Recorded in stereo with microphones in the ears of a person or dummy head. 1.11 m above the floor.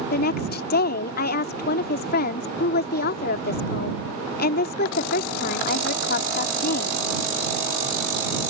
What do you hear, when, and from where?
0.1 s a woman speaking: 50° left (ahead or behind)